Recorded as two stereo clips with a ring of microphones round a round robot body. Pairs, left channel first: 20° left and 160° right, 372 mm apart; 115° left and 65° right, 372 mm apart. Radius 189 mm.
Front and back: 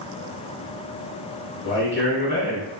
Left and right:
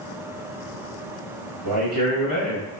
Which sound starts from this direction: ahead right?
A man speaking, at 1.6 s.